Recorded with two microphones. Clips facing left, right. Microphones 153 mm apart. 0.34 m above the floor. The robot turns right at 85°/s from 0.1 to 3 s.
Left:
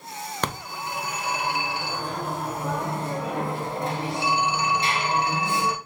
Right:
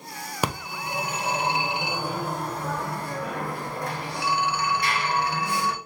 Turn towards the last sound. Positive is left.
turn(degrees=25)  # may be behind; listen again after turning